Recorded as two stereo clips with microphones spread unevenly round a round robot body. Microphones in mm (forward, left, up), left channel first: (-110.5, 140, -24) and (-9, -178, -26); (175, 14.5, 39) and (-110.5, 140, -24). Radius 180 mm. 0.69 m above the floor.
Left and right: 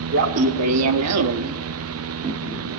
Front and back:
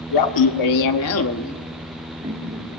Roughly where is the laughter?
Ahead.